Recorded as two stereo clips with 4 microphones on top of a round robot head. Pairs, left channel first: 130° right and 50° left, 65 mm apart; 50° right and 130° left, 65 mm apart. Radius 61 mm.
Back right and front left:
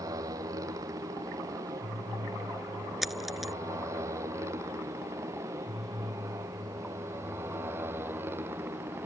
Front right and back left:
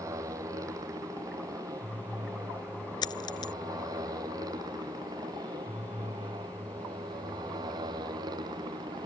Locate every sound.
0.0 s a motorcycle: 90° left; by 9.1 s 110° left
3.0 s a dropped coin: 35° right